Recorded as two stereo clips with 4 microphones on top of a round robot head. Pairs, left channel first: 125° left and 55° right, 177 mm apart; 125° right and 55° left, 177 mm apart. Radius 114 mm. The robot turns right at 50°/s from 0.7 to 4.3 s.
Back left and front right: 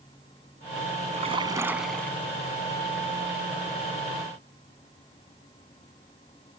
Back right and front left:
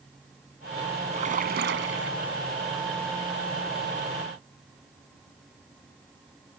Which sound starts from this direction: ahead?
A splash, at 1.1 s.